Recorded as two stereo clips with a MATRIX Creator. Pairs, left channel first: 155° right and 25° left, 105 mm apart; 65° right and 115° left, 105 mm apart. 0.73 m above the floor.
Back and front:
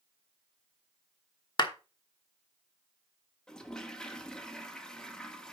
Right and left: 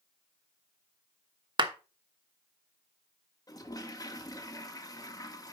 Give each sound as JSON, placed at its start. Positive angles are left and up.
{"t": 1.6, "sound": "a clap", "azimuth_deg": 155, "distance_m": 1.1}
{"t": 3.5, "sound": "a toilet flushing", "azimuth_deg": -80, "distance_m": 1.1}